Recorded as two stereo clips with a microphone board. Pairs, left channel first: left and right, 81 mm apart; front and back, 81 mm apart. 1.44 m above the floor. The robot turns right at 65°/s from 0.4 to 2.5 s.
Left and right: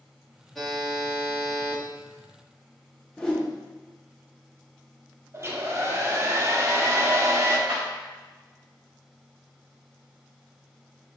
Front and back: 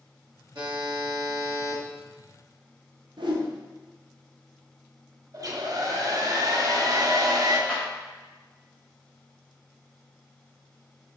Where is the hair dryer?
145° right, 0.6 m.